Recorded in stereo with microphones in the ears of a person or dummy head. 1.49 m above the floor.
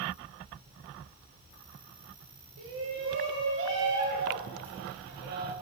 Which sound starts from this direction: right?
A shout, at 2.6 s.